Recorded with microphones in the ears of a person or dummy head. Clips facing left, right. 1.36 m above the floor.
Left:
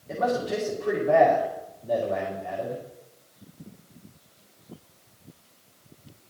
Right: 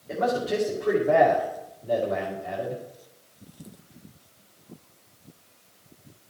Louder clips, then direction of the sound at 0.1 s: Right 1 dB; 5° right (ahead or behind).